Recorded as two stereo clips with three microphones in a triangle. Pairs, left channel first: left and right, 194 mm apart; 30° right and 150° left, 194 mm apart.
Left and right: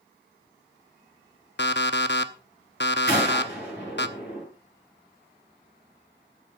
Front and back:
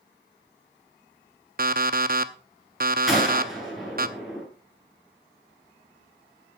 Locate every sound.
1.6 s an alarm clock: 110° left, 0.7 m
3.1 s a gunshot: 60° left, 7.5 m